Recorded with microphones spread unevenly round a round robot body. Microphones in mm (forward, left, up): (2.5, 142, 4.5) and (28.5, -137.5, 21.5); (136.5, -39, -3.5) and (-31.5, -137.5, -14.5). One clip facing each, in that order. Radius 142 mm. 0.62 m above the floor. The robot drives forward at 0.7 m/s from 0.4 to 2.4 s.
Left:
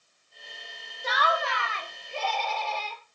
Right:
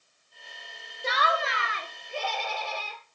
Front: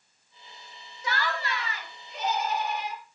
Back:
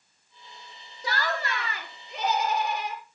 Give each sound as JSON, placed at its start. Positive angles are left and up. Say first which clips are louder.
{"t": 1.0, "sound": "laughter", "louder": "even, back 1 dB", "azimuth_deg": -135, "distance_m": 0.9}